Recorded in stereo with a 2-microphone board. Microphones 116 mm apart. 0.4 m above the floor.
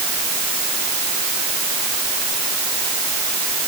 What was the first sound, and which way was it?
Only background noise.